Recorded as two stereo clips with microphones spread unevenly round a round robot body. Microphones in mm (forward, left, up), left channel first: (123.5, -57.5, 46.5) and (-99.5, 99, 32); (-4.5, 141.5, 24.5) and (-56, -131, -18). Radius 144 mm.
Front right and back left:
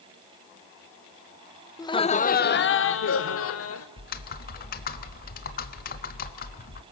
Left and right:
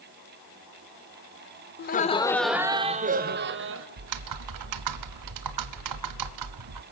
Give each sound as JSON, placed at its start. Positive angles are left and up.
{"t": 1.8, "sound": "laughter", "azimuth_deg": 40, "distance_m": 0.9}
{"t": 4.0, "sound": "typing on a keyboard", "azimuth_deg": -95, "distance_m": 0.9}